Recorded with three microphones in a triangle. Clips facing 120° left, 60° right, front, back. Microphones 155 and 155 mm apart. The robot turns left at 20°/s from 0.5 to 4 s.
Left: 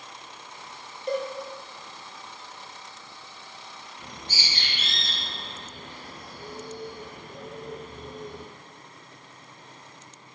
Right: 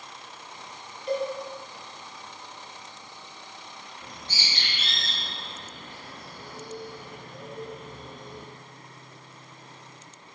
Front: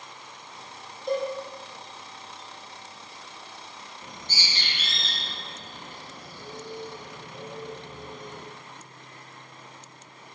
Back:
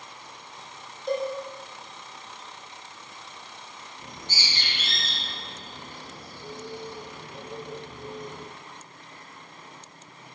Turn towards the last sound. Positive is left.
turn(degrees=115)